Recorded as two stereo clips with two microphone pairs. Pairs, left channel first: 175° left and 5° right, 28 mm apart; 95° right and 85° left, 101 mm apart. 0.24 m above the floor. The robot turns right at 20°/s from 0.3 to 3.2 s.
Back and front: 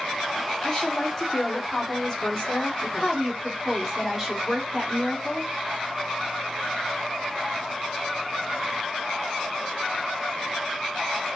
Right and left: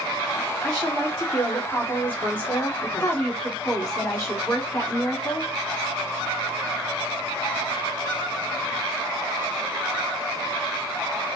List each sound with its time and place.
0.6 s a woman speaking: 175° right, 1.5 m; by 3.2 s 125° right, 1.5 m
3.0 s a woman speaking: 90° right, 1.4 m; by 5.5 s 85° right, 1.4 m